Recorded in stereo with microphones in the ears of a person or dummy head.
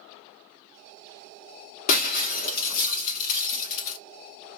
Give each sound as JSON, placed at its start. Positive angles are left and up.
{"t": 1.9, "sound": "breaking glass", "side_deg": 50, "distance_m": 1.8}